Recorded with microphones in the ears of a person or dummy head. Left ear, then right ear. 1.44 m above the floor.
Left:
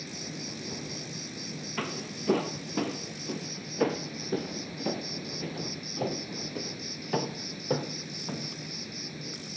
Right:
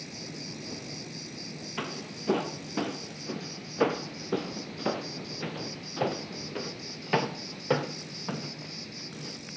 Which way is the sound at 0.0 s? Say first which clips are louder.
Left 2 dB; centre (ahead or behind).